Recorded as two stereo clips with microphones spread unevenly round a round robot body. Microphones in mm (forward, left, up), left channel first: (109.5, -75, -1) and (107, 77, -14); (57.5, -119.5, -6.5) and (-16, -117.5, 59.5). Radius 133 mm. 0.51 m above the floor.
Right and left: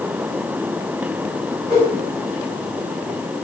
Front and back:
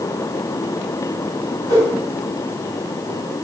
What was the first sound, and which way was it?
A whoosh, 120° right.